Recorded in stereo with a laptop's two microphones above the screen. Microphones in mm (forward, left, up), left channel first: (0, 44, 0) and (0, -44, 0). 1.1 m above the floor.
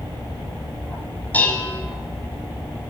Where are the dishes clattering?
20° left (ahead or behind), 5.5 m.